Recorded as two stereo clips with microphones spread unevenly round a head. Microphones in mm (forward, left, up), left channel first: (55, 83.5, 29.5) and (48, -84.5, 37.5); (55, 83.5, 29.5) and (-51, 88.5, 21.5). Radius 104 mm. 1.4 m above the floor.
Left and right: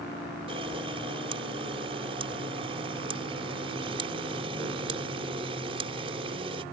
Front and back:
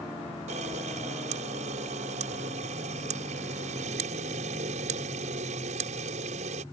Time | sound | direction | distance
0.5 | a camera shutter | 155° right | ?